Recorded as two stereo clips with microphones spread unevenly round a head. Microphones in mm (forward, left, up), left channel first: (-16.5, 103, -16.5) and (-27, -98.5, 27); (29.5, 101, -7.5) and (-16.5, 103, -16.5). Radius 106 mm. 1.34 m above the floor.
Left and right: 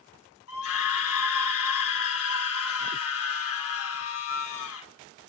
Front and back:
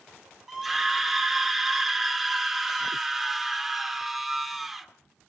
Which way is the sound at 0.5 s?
95° left.